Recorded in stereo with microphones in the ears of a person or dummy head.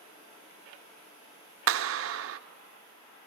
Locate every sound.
1.7 s a clap: 65° right (ahead or behind), 0.6 m